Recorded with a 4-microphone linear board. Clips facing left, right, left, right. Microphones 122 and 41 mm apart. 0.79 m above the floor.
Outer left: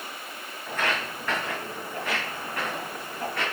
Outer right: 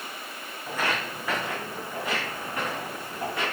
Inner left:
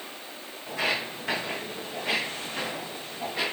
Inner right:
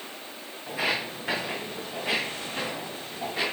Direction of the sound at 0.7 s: 10° right (ahead or behind).